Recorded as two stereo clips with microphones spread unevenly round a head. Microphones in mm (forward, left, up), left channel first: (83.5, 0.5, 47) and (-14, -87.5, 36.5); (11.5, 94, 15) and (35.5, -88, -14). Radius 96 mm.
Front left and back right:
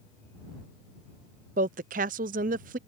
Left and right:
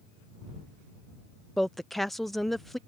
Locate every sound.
1.6 s a woman speaking: 175° right